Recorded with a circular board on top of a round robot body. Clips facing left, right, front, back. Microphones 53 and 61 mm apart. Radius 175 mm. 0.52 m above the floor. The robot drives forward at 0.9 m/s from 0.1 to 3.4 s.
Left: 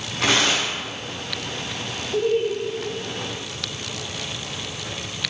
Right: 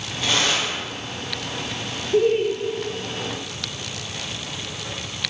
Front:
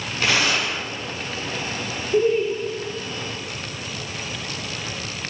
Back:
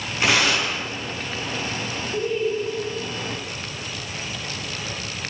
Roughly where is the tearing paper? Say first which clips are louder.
Left 2 dB, back 1 dB; left.